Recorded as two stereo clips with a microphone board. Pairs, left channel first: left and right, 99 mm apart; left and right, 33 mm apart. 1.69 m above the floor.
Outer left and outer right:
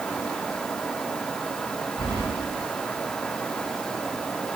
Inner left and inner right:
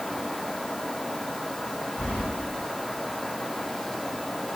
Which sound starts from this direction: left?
Keys jangling, at 2.0 s.